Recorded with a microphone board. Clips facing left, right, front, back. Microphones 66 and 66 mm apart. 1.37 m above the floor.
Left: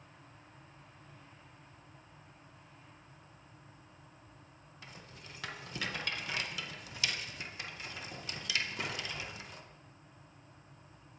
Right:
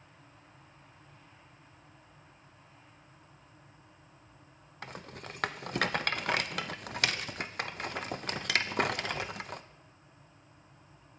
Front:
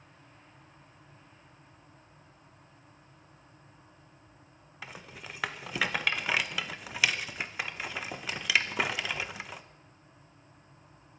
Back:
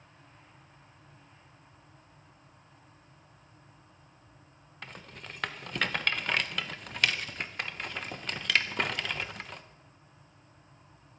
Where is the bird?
I don't hear a bird.